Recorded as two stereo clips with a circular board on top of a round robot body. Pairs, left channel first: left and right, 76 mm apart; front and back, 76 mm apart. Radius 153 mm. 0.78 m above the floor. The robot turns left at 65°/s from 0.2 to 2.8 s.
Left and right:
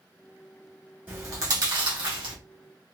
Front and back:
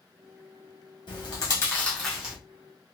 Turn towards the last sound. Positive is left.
turn(degrees=-135)